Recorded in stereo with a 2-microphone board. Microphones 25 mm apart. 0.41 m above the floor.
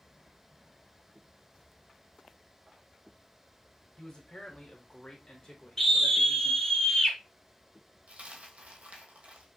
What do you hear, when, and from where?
4.0 s a man speaking: 30° left (ahead or behind), 1.3 m; by 6.8 s 25° left (ahead or behind), 1.8 m
5.8 s a scream: 15° left (ahead or behind), 2.0 m
8.1 s a dropped coin: 55° right (ahead or behind), 1.0 m